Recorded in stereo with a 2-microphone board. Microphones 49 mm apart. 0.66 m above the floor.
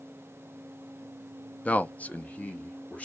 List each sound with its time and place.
1.6 s a man speaking: 25° left (ahead or behind), 0.5 m